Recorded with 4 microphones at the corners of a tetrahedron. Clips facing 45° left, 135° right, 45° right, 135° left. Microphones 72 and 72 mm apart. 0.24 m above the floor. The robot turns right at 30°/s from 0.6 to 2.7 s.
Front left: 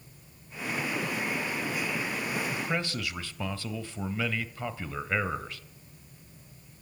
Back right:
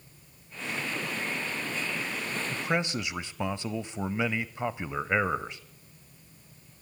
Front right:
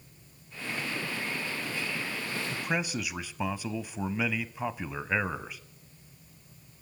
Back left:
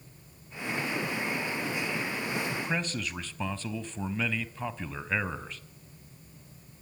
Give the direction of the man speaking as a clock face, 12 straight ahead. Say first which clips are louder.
Back right 2 dB, even; 4 o'clock.